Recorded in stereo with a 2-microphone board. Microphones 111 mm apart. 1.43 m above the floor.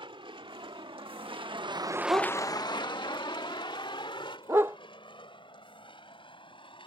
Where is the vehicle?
55° right (ahead or behind); by 6.9 s 55° left (ahead or behind).